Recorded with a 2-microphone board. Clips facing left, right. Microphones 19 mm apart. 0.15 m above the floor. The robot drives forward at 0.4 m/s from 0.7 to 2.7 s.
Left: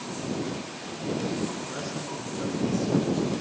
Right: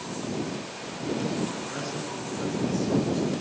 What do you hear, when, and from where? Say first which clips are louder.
1.7 s a man speaking: right 1 dB; 5° right (ahead or behind), 1.5 m